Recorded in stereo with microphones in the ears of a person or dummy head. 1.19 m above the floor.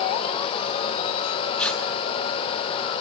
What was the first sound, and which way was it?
Tearing paper, 10° left (ahead or behind).